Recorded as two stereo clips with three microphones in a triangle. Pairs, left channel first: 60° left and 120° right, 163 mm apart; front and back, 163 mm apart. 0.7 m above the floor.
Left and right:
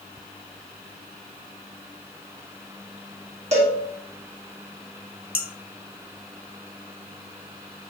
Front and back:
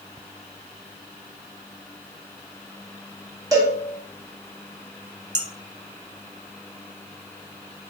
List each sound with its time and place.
3.5 s a cowbell: 120° right, 1.5 m
5.3 s dishes clattering: 115° left, 0.9 m